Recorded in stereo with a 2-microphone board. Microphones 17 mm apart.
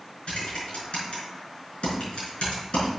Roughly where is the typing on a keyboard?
Left.